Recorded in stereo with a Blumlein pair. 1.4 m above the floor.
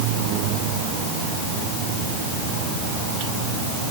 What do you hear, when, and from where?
Only background noise.